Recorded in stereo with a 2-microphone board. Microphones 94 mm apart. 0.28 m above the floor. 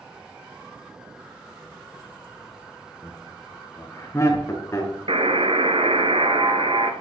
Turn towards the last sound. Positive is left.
turn(degrees=-80)